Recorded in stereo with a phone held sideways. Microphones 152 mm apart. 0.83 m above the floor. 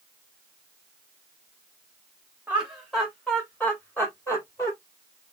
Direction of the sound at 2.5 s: 10° right (ahead or behind).